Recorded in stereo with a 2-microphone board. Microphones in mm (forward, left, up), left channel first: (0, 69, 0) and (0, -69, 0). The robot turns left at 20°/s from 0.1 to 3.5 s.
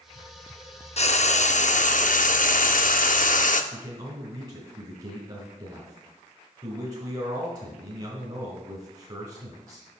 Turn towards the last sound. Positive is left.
turn(degrees=-40)  # may be behind; listen again after turning